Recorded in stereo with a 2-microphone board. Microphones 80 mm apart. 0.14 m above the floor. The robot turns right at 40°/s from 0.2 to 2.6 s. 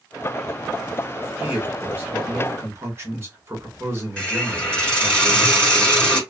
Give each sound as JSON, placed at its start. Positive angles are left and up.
{"t": 1.4, "sound": "a man speaking", "azimuth_deg": -140, "distance_m": 1.6}
{"t": 4.2, "sound": "a hiss", "side_deg": 15, "distance_m": 2.5}